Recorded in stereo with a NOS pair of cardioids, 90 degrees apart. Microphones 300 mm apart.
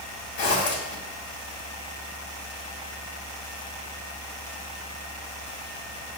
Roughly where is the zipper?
Ahead left.